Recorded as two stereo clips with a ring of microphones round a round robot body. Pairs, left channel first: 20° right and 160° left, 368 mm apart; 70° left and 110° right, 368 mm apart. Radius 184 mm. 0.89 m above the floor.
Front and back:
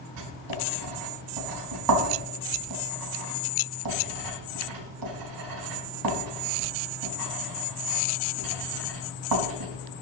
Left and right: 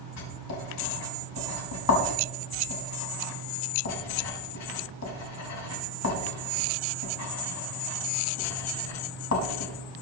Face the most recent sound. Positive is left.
turn(degrees=120)